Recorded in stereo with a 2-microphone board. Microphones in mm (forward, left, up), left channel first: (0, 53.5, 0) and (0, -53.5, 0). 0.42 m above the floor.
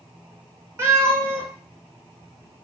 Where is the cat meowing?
25° right (ahead or behind), 1.2 m.